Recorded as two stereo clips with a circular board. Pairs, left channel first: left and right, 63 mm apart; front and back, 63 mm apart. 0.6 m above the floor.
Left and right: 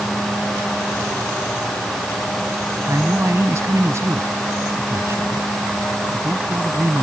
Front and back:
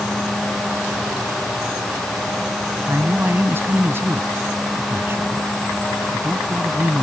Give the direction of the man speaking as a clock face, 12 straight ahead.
4 o'clock.